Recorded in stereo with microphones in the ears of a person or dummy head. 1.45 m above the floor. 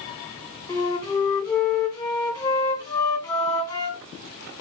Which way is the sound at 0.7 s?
20° left (ahead or behind).